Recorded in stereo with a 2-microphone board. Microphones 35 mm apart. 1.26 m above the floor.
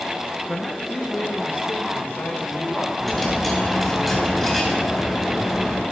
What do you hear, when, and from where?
0.5 s a man speaking: 40° left (ahead or behind), 0.8 m; by 2.9 s 70° left (ahead or behind), 3 m
3.0 s a dropped coin: 5° left (ahead or behind), 3 m